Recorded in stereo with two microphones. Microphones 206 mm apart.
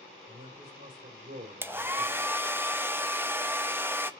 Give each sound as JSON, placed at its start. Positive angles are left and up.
{"t": 0.3, "sound": "a man speaking", "side_deg": -45, "distance_m": 4.0}
{"t": 1.6, "sound": "a hair dryer", "side_deg": -10, "distance_m": 0.6}